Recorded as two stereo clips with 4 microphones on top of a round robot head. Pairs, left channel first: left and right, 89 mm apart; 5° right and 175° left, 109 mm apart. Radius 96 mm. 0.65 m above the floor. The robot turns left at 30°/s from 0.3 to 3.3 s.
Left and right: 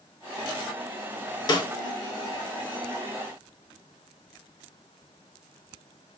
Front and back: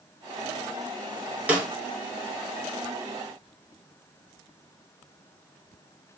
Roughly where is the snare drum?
Left.